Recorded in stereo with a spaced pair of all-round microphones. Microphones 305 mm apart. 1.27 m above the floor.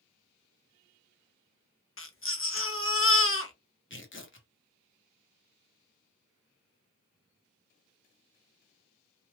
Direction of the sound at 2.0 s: 45° left (ahead or behind).